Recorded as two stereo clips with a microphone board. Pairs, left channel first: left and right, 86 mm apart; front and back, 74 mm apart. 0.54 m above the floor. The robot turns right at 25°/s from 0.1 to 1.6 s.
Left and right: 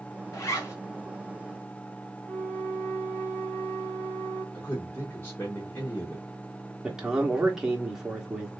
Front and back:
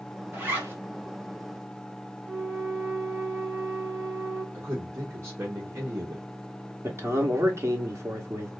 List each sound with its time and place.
0.3 s a zipper: 125° left, 1.3 m; by 0.7 s 135° left, 1.3 m
2.2 s a flute: 140° left, 2.5 m
4.5 s a man speaking: 145° left, 1.0 m
6.8 s a man speaking: 170° right, 1.2 m